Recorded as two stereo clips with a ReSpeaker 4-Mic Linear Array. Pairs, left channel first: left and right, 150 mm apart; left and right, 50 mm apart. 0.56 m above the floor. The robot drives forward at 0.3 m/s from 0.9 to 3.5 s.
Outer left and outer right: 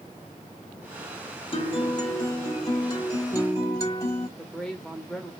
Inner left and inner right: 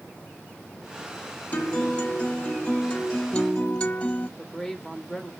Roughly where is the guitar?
Left.